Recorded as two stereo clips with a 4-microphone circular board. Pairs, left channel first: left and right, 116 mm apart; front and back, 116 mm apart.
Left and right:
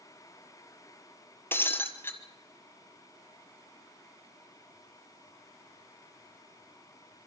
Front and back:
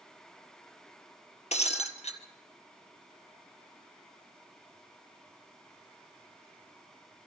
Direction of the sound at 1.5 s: 20° left.